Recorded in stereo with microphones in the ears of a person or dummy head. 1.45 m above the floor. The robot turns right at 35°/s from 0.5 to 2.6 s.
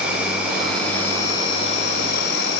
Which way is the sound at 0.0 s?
5° right.